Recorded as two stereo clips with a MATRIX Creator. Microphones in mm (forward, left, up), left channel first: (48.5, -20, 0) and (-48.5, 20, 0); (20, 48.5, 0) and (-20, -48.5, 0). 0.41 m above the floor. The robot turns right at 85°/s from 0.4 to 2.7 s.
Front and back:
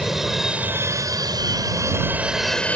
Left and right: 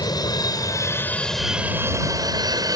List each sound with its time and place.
0.0 s an aircraft: 70° left; by 2.8 s 95° right